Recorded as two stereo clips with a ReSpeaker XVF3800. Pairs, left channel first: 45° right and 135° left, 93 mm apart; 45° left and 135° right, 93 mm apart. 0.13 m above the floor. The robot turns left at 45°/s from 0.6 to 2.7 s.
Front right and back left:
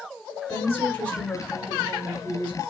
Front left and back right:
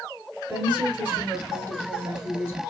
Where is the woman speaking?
80° right, 1.1 m; by 2.6 s 170° right, 1.1 m.